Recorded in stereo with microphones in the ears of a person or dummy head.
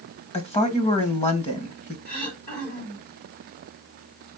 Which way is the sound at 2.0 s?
60° left (ahead or behind).